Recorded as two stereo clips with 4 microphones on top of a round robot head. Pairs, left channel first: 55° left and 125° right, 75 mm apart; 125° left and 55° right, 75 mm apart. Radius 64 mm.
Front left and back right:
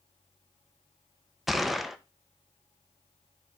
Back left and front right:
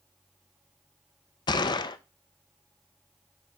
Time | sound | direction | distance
1.5 | a gunshot | 145° left | 0.6 m